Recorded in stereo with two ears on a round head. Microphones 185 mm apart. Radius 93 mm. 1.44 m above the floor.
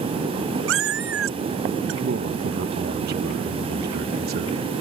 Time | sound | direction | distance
0.7 | a cat meowing | 65° right (ahead or behind) | ?
2.0 | a man speaking | 50° right (ahead or behind) | ?